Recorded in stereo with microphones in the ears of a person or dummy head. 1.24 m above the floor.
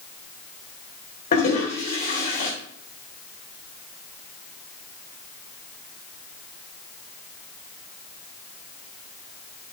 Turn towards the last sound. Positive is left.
turn(degrees=45)  # may be behind; listen again after turning